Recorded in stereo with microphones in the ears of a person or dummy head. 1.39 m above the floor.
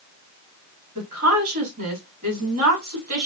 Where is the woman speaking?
45° right (ahead or behind), 3.5 m.